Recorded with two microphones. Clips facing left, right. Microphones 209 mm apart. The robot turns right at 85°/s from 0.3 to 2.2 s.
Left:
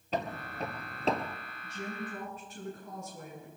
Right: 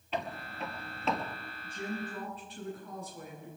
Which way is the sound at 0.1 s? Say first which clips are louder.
Left 2 dB; 40° left (ahead or behind).